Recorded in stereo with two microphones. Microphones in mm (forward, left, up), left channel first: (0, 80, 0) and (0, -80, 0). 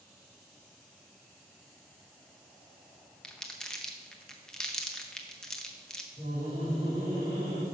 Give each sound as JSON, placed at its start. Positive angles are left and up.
{"t": 3.2, "sound": "crumpling", "side_deg": 5, "distance_m": 0.7}
{"t": 6.2, "sound": "laughter", "side_deg": -40, "distance_m": 4.0}